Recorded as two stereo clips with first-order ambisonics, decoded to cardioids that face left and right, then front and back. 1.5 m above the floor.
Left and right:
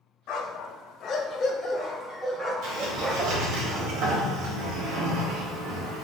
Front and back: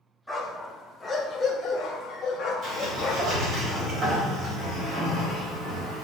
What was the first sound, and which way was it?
A dog barking, 90° left.